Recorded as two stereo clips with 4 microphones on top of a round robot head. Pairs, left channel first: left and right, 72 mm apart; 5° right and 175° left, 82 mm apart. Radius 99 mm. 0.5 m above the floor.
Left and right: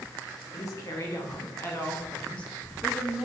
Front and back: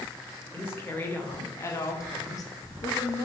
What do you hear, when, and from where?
0.5 s a woman speaking: 55° left, 2.5 m; by 3.3 s 15° right, 1.4 m